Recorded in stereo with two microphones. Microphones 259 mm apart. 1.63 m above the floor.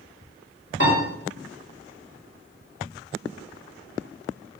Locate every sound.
0.8 s a piano: 45° left (ahead or behind), 3.5 m